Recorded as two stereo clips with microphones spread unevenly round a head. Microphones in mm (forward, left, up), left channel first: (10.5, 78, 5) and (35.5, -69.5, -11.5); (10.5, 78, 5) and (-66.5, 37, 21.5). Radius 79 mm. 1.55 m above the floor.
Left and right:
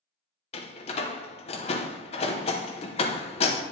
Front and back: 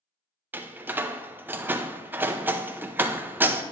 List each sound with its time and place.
0.5 s a door slam: 145° left, 0.8 m